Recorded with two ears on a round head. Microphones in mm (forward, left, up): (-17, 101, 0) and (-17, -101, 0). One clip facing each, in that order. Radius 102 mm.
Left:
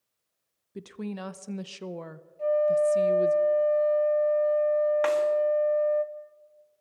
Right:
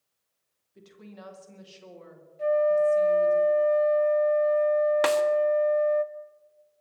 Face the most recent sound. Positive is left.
turn(degrees=-55)  # may be behind; listen again after turning